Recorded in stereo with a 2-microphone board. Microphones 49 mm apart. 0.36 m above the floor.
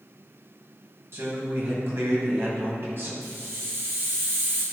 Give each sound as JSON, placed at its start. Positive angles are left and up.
{"t": 1.1, "sound": "a man speaking", "side_deg": -60, "distance_m": 2.5}
{"t": 3.2, "sound": "a hiss", "side_deg": -55, "distance_m": 2.0}